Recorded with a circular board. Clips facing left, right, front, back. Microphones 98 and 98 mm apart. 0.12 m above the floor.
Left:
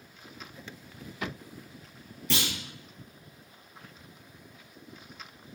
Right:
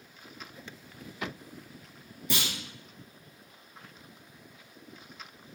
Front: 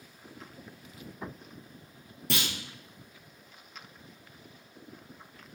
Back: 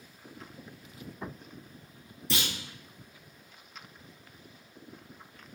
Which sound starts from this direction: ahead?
A clunk, at 2.3 s.